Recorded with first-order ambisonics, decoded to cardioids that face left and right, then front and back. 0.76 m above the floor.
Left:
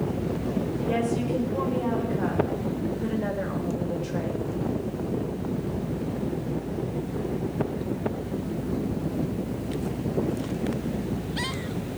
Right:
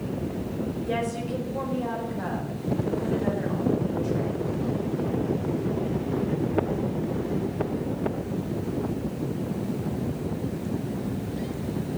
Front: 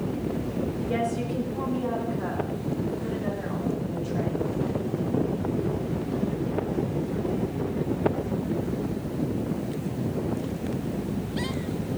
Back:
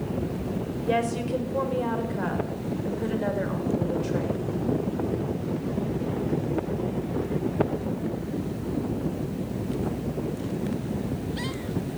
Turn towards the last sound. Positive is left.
turn(degrees=150)